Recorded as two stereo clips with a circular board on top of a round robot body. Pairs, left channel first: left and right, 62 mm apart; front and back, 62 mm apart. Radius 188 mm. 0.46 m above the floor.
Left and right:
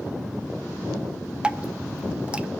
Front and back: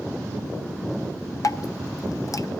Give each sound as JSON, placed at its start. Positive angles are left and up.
{"t": 1.4, "sound": "dripping", "azimuth_deg": -20, "distance_m": 0.8}